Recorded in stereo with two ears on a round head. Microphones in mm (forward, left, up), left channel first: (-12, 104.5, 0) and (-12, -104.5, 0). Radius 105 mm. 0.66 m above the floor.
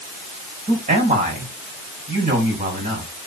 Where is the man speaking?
35° right (ahead or behind), 5.5 m.